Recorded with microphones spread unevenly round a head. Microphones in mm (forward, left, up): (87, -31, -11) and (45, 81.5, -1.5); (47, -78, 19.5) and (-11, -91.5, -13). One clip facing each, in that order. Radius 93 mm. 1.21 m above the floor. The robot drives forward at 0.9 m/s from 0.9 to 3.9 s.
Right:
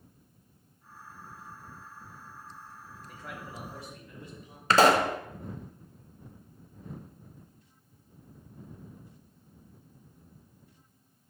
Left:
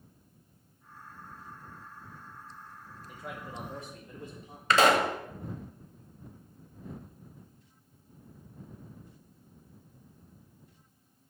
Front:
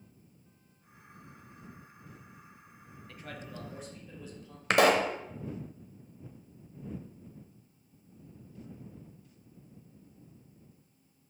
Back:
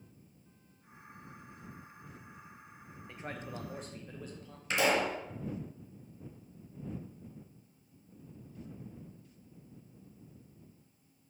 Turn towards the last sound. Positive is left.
turn(degrees=-20)